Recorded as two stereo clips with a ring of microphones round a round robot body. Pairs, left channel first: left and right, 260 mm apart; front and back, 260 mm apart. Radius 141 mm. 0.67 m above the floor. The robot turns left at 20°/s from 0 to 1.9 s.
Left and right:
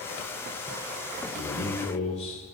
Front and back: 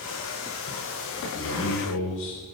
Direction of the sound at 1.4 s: 35° left.